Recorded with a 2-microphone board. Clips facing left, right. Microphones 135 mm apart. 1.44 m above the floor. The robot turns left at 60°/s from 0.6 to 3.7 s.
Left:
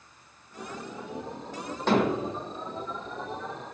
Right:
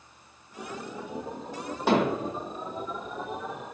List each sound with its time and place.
1.9 s hammering: 10° right (ahead or behind), 1.7 m; by 2.3 s 20° left (ahead or behind), 1.7 m